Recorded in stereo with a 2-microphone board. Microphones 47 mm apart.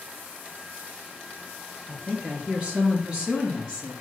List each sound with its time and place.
1.9 s a woman speaking: 30° right (ahead or behind), 3.5 m; by 4.0 s 15° right (ahead or behind), 4 m